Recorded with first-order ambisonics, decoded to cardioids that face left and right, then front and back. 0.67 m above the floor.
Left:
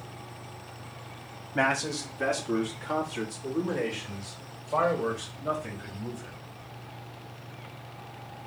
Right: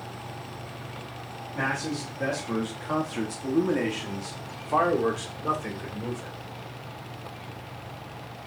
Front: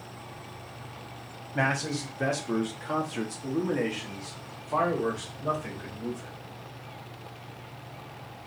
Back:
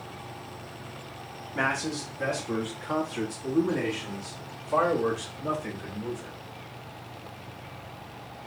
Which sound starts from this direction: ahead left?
A man speaking, at 1.6 s.